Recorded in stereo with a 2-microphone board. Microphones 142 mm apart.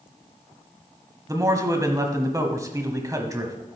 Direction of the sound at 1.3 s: 25° right (ahead or behind).